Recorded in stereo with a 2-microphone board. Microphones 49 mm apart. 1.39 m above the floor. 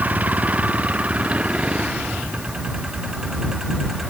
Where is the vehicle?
30° right (ahead or behind); by 4.1 s 5° right (ahead or behind).